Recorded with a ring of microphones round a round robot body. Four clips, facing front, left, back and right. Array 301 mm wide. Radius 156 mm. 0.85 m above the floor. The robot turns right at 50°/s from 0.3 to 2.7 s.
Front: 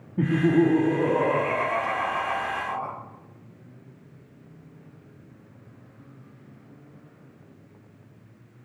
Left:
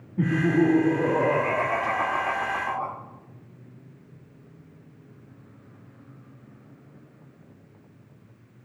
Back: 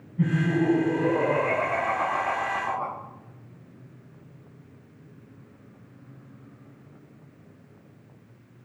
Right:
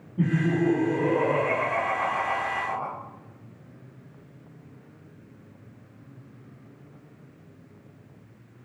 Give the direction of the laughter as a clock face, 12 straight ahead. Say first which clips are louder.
Left 3 dB, front 4 dB; 12 o'clock.